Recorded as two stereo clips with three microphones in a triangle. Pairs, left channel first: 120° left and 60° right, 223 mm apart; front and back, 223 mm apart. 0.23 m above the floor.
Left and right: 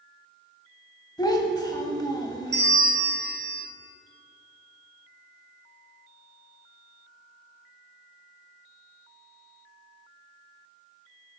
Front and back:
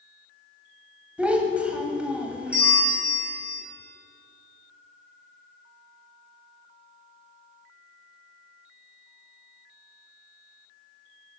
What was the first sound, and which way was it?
A child speaking, 105° left.